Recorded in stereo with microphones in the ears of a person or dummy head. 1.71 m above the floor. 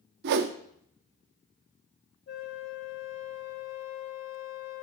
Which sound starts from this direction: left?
A flute, at 2.3 s.